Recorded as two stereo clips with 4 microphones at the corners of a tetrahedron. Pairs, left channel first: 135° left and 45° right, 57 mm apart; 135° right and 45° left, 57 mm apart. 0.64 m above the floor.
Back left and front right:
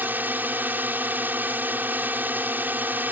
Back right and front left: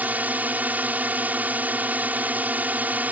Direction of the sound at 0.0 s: 5° right.